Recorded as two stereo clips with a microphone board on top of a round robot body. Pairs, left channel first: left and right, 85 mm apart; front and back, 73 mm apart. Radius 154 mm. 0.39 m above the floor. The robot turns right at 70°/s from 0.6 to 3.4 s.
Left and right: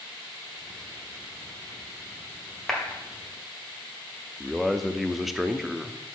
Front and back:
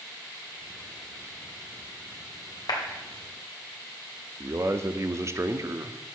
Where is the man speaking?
175° right, 0.9 m.